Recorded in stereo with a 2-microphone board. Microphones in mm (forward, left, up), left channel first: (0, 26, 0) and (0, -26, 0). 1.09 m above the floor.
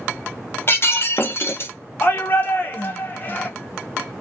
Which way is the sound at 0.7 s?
45° left (ahead or behind).